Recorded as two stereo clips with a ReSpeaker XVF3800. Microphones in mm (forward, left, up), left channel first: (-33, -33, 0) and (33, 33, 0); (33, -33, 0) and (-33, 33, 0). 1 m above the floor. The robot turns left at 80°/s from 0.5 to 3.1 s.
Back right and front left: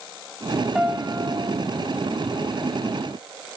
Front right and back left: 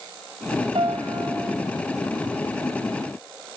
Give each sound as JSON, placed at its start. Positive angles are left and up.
{"t": 0.8, "sound": "a piano", "azimuth_deg": 130, "distance_m": 1.3}